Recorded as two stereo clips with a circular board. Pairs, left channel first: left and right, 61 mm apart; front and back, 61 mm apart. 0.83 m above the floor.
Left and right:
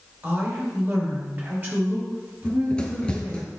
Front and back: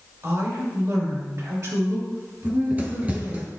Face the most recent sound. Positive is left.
turn(degrees=145)